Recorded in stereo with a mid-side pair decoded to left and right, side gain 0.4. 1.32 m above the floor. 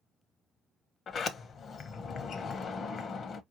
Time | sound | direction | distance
1.1 | a sliding door | 55° left | 0.9 m